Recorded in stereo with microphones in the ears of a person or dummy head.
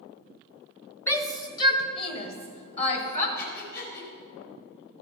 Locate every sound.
1.1 s a shout: 20° left (ahead or behind), 1.0 m; by 3.3 s 45° left (ahead or behind), 2 m
3.4 s breathing: 60° left (ahead or behind), 3 m